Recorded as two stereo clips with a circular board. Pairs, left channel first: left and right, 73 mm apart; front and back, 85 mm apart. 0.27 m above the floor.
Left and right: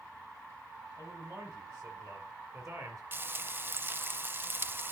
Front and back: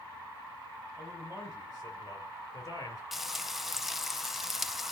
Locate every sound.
1.0 s a man speaking: 45° right, 6 m
3.1 s frying: 95° right, 0.5 m